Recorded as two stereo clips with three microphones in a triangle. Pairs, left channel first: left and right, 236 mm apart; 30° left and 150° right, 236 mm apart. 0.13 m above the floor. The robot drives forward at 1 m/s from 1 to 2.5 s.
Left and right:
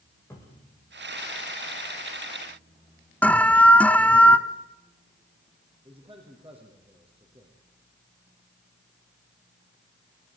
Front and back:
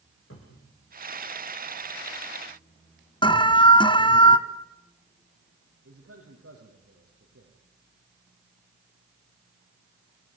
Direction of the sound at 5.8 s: 155° right.